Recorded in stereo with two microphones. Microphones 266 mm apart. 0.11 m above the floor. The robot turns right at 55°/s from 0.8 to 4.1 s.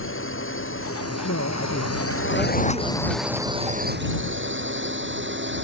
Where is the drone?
50° left (ahead or behind); by 5.7 s 45° right (ahead or behind).